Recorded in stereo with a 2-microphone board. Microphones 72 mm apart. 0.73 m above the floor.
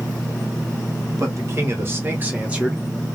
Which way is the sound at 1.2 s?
45° right (ahead or behind).